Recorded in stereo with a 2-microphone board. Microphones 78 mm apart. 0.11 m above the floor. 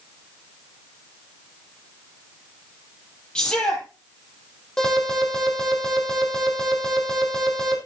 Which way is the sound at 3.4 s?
15° left (ahead or behind).